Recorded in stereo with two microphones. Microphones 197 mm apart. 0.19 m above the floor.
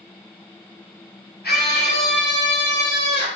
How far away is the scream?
About 3.5 m.